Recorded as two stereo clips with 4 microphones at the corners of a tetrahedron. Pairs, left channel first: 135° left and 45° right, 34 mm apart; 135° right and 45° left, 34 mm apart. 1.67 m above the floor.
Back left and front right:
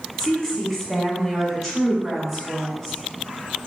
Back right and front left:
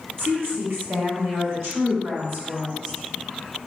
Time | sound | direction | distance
0.2 | a woman speaking | 60° left | 1.4 m